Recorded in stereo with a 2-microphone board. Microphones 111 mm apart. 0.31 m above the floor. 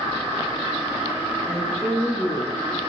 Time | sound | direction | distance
1.5 | a woman speaking | 10° left (ahead or behind) | 6.5 m